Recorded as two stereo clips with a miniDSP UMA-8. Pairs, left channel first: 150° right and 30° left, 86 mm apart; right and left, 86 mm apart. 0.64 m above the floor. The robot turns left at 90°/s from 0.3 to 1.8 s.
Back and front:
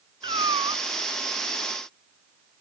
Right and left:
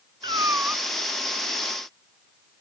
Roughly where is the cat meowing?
Ahead left.